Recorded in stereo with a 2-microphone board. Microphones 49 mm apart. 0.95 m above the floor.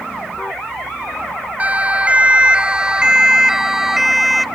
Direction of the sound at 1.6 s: 30° right (ahead or behind).